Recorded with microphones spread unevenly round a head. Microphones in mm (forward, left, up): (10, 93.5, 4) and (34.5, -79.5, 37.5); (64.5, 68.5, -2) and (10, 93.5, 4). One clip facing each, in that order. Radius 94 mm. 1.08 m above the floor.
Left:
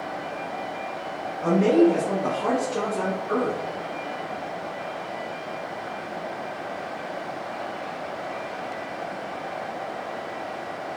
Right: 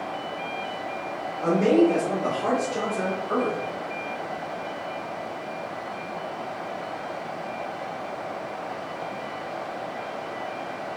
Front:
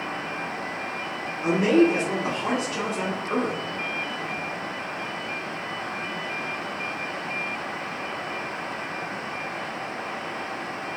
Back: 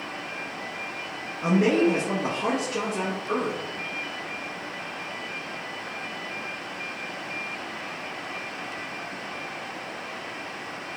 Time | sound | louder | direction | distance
1.4 | a man speaking | left 1 dB, front 2 dB | 175° right | 1.0 m